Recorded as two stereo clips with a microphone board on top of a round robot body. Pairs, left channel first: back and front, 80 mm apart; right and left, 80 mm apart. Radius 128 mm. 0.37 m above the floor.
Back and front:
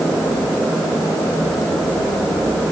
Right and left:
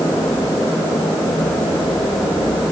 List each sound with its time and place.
Only background noise.